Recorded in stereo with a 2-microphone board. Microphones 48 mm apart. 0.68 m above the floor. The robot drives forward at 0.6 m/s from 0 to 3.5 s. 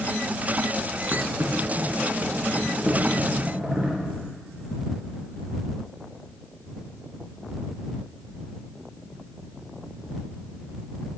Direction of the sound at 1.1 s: 45° right (ahead or behind).